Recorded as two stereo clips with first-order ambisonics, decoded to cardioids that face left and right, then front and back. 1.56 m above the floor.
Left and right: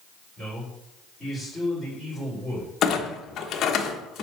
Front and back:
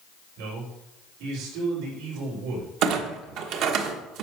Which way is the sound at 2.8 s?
145° left.